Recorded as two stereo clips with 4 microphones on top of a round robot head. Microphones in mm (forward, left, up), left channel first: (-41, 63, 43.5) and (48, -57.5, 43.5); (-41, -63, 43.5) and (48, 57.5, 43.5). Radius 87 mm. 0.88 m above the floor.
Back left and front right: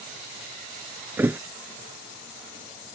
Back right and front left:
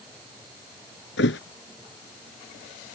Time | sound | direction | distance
1.2 | a thud | 135° right | ?